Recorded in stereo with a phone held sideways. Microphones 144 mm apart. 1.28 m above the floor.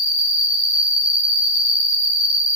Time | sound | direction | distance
0.0 | an insect | 40° right (ahead or behind) | 1.0 m